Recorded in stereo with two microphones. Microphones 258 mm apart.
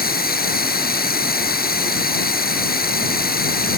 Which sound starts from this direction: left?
Running water, at 0.0 s.